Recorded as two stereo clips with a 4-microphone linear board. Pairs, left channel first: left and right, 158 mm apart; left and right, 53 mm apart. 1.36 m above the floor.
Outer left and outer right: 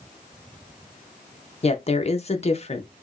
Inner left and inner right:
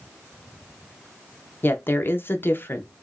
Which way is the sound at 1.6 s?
40° left (ahead or behind).